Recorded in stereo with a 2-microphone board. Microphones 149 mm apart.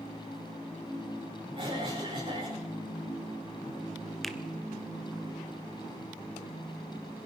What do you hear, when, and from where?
1.6 s a cough: 35° right (ahead or behind), 8 m
4.2 s a finger snap: centre (ahead or behind), 1.3 m